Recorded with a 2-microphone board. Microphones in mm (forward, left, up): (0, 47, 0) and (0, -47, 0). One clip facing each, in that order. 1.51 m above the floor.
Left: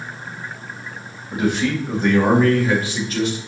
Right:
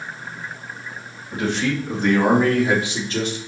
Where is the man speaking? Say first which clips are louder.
Left 2 dB; 15° left (ahead or behind), 3 m; by 3.4 s 35° right (ahead or behind), 2.5 m.